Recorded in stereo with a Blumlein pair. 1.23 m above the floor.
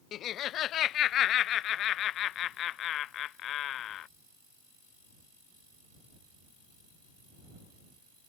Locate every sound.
0.1 s laughter: 30° left